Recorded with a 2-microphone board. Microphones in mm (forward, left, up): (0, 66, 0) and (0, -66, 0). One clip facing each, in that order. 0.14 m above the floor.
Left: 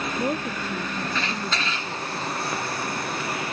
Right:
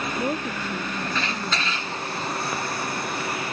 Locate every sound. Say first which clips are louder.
0.2 s a woman speaking: left 1 dB; centre (ahead or behind)